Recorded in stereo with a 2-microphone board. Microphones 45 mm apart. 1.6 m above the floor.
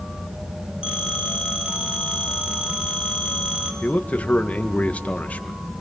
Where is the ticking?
I don't hear ticking.